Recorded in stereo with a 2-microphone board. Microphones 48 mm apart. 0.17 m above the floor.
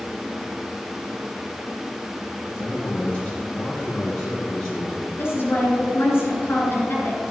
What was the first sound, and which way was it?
A man speaking, 30° left (ahead or behind).